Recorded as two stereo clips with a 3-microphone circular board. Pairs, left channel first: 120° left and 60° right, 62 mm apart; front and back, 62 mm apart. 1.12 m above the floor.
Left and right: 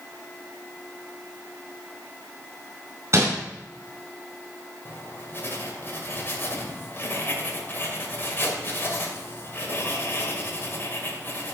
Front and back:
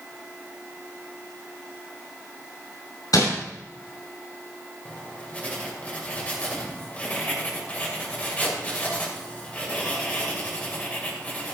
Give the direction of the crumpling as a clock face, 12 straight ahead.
12 o'clock.